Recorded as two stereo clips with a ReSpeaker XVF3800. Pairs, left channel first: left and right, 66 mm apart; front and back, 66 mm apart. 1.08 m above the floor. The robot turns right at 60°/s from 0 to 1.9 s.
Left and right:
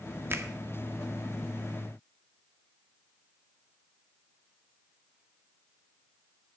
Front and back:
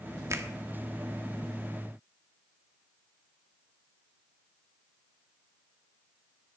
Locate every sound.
0.3 s a finger snap: 140° right, 1.3 m; by 0.5 s 130° right, 1.3 m